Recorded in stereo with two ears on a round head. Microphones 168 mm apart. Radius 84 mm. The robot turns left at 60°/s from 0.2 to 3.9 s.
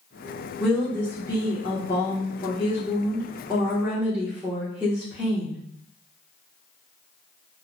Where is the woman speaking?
Straight behind, 0.9 m; by 5.6 s 15° right, 0.9 m.